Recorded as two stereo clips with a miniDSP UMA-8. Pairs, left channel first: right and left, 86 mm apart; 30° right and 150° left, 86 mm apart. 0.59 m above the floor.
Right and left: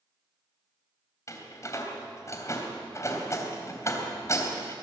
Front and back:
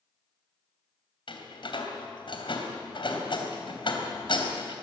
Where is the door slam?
35° right, 3 m.